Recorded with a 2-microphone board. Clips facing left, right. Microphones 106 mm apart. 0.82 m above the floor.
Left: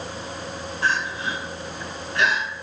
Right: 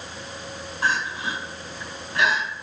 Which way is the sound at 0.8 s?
35° right (ahead or behind).